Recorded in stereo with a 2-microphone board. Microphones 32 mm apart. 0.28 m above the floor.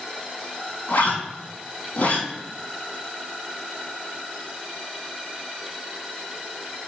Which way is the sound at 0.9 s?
65° left (ahead or behind).